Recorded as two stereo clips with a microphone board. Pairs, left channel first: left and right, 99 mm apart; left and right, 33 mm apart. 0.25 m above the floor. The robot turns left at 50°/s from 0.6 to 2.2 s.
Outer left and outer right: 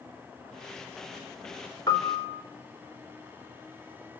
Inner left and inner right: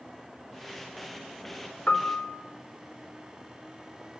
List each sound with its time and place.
1.9 s a piano: 45° left (ahead or behind), 4 m; by 2.4 s 25° left (ahead or behind), 4 m